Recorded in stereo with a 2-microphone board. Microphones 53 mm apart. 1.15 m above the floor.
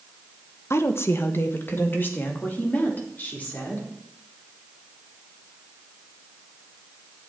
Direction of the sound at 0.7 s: 55° left (ahead or behind).